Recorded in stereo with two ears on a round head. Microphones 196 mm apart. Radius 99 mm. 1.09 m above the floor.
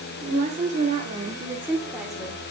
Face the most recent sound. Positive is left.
turn(degrees=5)  # may be behind; listen again after turning